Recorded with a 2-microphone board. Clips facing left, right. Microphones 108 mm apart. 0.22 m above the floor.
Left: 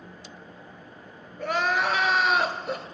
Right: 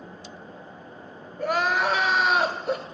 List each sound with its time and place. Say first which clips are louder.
1.4 s crying: right 2 dB; 5° right (ahead or behind), 0.7 m